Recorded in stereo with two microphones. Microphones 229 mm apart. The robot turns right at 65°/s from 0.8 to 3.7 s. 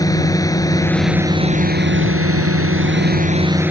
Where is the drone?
165° left; by 3.7 s 5° right.